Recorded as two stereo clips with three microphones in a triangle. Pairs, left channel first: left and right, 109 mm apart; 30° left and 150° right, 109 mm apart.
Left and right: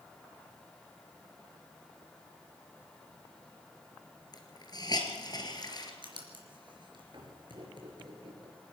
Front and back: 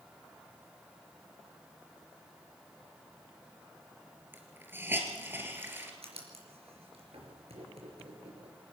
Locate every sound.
4.3 s a hiss: 140° left, 3 m
6.0 s writing: 130° right, 4.5 m